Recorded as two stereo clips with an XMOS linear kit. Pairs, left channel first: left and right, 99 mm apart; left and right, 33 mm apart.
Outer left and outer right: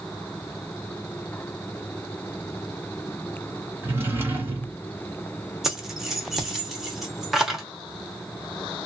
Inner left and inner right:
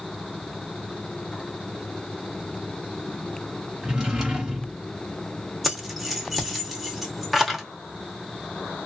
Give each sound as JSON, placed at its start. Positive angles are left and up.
{"t": 3.8, "sound": "a drawer", "side_deg": -20, "distance_m": 1.4}
{"t": 5.6, "sound": "keys jangling", "side_deg": -5, "distance_m": 0.9}